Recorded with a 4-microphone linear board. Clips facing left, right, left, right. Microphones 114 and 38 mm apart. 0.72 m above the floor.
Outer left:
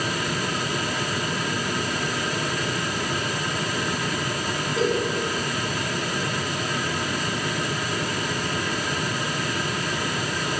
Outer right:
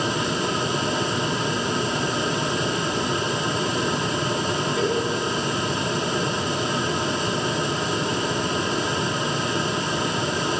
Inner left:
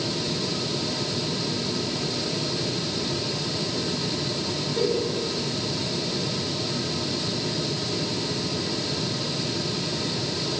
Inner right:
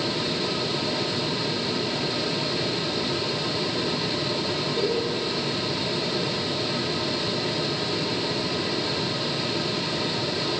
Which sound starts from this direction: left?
A giggle, at 4.8 s.